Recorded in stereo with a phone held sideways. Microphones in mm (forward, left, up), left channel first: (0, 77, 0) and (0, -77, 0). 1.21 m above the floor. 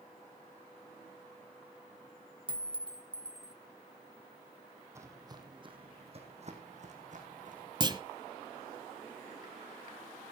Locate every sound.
2.5 s a clink: 35° right (ahead or behind), 0.8 m
5.0 s footsteps: 20° right (ahead or behind), 3 m; by 7.7 s 60° right (ahead or behind), 5 m
7.8 s a clunk: 30° right (ahead or behind), 1.1 m